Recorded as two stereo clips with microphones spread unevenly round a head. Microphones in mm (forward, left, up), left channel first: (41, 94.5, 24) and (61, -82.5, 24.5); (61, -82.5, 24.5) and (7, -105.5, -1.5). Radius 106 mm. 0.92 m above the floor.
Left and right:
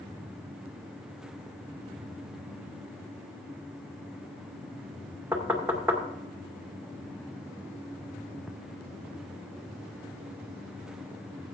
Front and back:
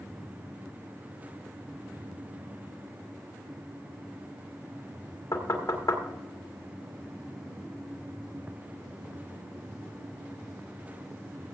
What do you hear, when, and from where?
5.3 s knocking: 5° right, 2 m